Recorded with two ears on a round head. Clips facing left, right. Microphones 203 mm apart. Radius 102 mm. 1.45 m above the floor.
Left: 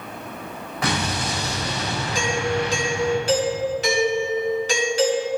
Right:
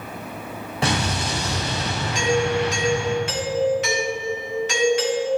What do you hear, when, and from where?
0.8 s an explosion: 25° right (ahead or behind), 3.5 m
2.1 s a doorbell: 30° left (ahead or behind), 2 m